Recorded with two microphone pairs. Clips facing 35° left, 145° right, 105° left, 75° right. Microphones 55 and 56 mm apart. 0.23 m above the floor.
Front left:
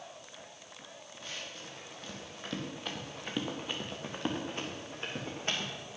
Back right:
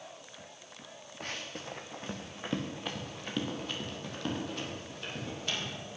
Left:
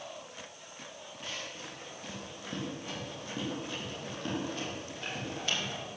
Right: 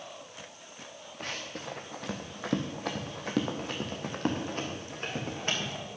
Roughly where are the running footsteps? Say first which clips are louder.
Back right 4 dB, right 4 dB; behind right.